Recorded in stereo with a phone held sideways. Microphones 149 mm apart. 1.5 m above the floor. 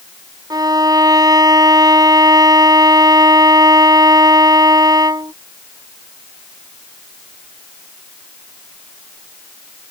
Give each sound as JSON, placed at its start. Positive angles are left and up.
{"t": 0.5, "sound": "a violin", "side_deg": -25}